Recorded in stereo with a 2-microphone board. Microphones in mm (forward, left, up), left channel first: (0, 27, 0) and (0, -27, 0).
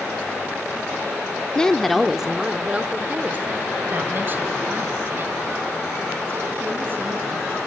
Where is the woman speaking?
15° left (ahead or behind), 0.7 m; by 7.6 s 45° right (ahead or behind), 4 m.